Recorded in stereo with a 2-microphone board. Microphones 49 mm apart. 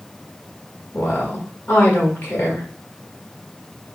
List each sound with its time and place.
0.9 s a woman speaking: 40° left (ahead or behind), 1.6 m